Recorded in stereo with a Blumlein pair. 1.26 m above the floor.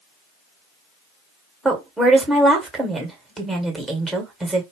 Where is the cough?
I don't hear a cough.